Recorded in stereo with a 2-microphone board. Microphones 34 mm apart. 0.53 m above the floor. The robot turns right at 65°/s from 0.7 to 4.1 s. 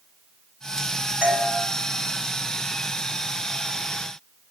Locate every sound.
1.2 s a doorbell: 35° right (ahead or behind), 2.5 m; by 1.5 s 20° right (ahead or behind), 2.5 m